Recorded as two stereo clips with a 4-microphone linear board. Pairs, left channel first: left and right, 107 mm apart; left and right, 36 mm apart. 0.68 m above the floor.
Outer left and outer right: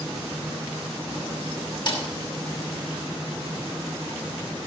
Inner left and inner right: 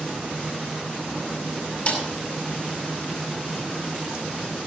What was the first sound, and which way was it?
A snare drum, 40° left (ahead or behind).